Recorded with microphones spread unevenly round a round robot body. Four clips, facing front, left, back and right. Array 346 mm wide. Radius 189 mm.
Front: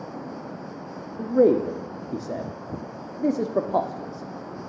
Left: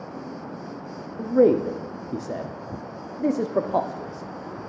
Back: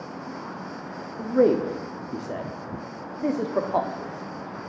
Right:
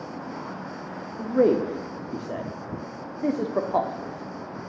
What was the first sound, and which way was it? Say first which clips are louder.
A man speaking: left 3 dB, front 1 dB; 10° left.